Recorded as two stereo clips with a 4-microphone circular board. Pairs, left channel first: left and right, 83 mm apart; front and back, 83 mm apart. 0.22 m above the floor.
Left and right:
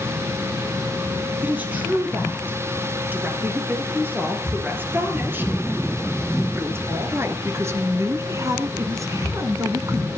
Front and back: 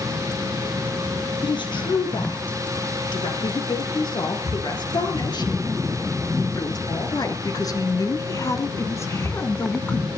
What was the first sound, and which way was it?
A woman speaking, 20° right.